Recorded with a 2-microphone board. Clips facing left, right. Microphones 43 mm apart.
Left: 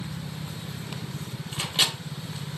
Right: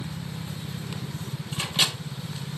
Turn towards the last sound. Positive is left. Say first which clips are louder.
# even
turn(degrees=10)  # may be behind; listen again after turning